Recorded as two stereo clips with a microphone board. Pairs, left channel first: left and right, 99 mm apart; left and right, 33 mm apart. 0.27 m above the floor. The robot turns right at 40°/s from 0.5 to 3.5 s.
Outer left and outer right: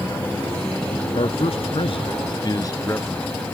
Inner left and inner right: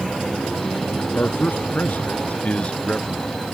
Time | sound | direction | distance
1.1 | a man speaking | 80° left | ?